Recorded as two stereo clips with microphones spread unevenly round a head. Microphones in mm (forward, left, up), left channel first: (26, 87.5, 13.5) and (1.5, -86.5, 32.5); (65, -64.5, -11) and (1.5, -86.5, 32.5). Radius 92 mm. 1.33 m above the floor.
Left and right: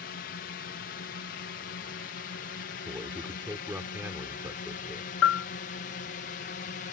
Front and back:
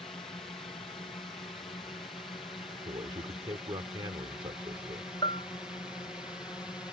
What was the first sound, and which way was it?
A drone, 80° left.